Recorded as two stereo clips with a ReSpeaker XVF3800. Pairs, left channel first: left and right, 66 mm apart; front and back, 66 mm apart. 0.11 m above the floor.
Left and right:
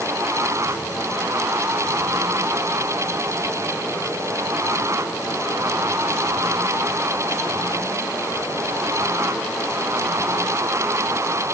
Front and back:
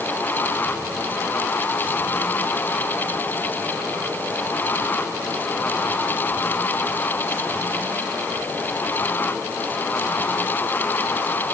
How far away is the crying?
I don't hear crying.